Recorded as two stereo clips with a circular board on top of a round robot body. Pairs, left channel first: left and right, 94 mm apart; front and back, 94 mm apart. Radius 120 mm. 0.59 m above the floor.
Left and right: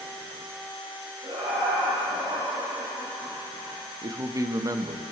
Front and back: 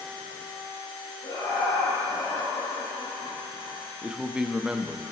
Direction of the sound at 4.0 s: 105° right.